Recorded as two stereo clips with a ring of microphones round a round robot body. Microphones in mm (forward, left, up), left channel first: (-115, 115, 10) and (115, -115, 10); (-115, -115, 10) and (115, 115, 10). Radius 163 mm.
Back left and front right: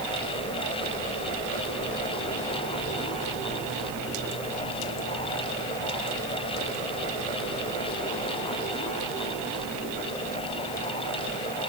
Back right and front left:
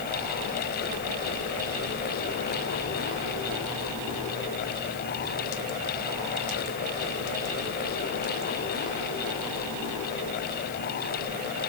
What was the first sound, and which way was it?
Only background noise.